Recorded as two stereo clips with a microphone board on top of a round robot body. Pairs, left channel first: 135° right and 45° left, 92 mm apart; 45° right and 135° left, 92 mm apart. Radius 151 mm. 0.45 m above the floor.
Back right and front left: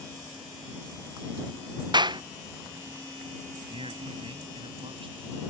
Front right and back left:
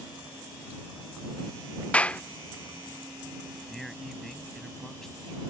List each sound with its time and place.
1.9 s a clap: 30° left
3.7 s a man speaking: 40° left